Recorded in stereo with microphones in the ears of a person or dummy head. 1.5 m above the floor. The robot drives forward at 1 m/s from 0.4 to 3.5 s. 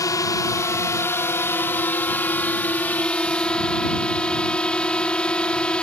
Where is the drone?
25° left (ahead or behind); by 5.8 s 15° left (ahead or behind).